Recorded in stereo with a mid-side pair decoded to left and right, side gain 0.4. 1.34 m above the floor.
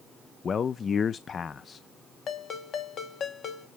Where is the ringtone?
65° left, 1.8 m.